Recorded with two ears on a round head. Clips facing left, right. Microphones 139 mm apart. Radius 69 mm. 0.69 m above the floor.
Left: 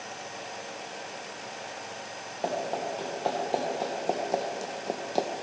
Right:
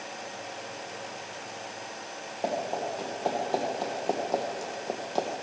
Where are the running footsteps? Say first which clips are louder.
Even; centre (ahead or behind), 3.5 m; by 5.3 s 15° left (ahead or behind), 1.0 m.